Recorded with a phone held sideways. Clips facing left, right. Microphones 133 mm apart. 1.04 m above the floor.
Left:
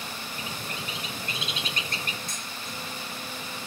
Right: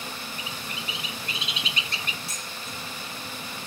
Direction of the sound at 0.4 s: 45° left (ahead or behind).